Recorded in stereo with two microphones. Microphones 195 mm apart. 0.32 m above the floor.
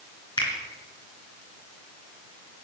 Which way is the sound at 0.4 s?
20° left (ahead or behind).